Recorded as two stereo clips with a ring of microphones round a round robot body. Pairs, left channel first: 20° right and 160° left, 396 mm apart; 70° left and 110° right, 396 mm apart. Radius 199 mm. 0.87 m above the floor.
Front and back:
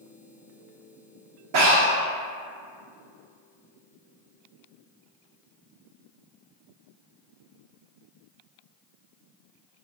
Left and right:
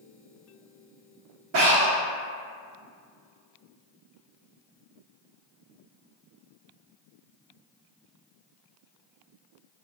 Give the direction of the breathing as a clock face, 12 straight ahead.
6 o'clock.